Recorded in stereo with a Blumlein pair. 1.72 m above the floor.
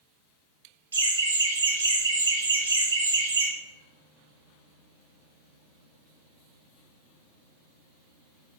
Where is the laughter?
70° right, 0.6 m.